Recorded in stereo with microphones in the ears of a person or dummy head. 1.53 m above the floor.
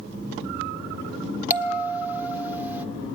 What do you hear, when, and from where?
1.5 s a bell: 10° right (ahead or behind), 1.4 m